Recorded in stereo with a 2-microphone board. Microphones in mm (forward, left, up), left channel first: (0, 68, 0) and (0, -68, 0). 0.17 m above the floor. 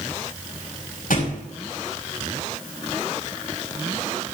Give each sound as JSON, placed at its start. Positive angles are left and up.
{"t": 1.1, "sound": "a thud", "side_deg": 90, "distance_m": 9.5}